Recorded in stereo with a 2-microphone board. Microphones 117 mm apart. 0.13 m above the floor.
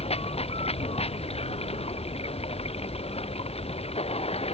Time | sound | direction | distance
0.0 | running water | 55° left (ahead or behind) | ?